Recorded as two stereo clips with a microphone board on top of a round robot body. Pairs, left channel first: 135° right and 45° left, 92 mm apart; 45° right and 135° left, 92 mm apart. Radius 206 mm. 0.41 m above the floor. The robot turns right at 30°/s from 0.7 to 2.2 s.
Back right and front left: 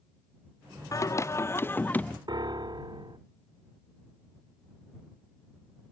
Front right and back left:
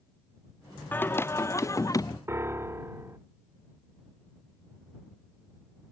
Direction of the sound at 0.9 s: 105° right.